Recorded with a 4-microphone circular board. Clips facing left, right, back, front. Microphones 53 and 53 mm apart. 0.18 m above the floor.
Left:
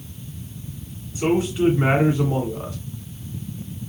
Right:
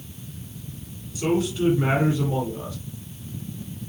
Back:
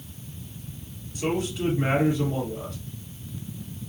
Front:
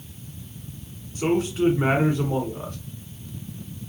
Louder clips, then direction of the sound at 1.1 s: Left 3 dB, front 5 dB; 35° left.